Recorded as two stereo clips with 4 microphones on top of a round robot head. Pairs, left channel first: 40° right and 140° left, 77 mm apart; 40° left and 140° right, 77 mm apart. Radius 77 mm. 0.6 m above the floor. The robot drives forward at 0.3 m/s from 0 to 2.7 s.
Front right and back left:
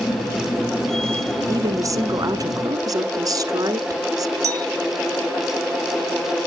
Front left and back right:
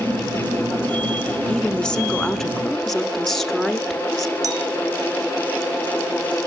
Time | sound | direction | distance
1.5 | a woman speaking | 110° left | 1.6 m
4.4 | a clink | 175° right | 1.4 m